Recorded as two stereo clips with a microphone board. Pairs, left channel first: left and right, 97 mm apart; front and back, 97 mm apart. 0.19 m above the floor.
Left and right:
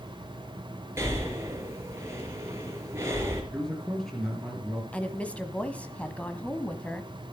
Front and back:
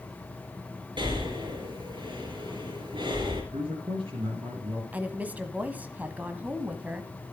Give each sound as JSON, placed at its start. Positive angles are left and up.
{"t": 1.0, "sound": "breathing", "azimuth_deg": -150, "distance_m": 3.5}
{"t": 3.5, "sound": "a man speaking", "azimuth_deg": 175, "distance_m": 4.0}
{"t": 4.9, "sound": "a woman speaking", "azimuth_deg": 140, "distance_m": 1.2}